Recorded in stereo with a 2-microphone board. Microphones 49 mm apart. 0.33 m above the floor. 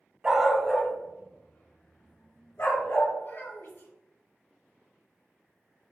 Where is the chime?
I don't hear a chime.